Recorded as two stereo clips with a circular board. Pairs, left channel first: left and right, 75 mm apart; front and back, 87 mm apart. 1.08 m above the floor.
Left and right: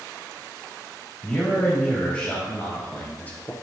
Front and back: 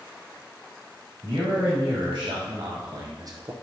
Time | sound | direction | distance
1.2 | a man speaking | 165° left | 3 m